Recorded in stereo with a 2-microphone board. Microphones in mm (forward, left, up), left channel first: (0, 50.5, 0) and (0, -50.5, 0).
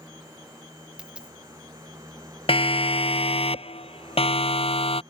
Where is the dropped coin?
10° right (ahead or behind).